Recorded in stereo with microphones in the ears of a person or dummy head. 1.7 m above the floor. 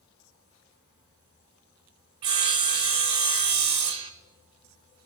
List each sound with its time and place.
2.2 s sawing: 25° right (ahead or behind), 0.5 m